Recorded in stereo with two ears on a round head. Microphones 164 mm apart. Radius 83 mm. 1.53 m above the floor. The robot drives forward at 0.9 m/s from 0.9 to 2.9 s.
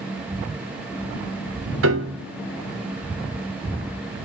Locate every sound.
1.8 s a piano: 70° right (ahead or behind), 0.7 m; by 2.2 s 65° right (ahead or behind), 0.7 m